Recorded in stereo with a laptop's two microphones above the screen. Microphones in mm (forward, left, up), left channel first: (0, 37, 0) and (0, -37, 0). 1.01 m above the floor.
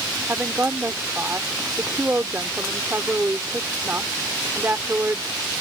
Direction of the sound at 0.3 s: 25° right (ahead or behind).